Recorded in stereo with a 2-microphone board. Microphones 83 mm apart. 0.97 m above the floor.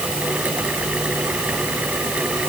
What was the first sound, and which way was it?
Only background noise.